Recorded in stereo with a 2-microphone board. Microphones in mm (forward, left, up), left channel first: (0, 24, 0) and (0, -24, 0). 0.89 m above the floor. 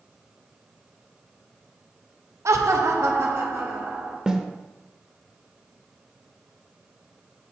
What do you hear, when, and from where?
2.5 s laughter: 70° right (ahead or behind), 0.6 m; by 4.2 s 60° right (ahead or behind), 1.5 m
4.3 s a snare drum: 15° right (ahead or behind), 0.6 m